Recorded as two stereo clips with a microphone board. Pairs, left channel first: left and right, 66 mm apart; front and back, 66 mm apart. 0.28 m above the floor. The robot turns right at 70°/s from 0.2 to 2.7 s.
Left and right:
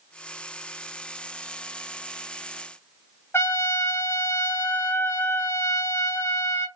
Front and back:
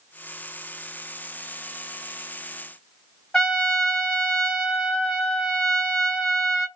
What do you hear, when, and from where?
3.3 s a trumpet: 65° left, 1.4 m